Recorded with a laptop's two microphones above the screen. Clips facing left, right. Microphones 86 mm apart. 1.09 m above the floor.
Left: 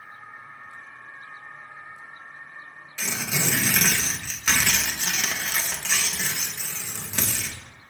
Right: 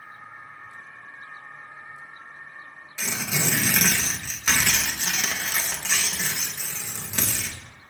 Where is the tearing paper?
10° right (ahead or behind), 0.9 m.